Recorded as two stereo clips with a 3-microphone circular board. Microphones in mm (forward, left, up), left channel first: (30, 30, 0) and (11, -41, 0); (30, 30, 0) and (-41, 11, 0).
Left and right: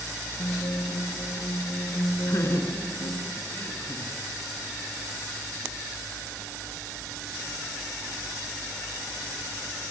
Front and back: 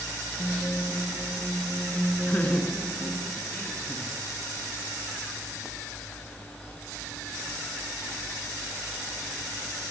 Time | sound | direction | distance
0.4 | a guitar | 75° left | 2.5 m
2.3 | laughter | 70° left | 2 m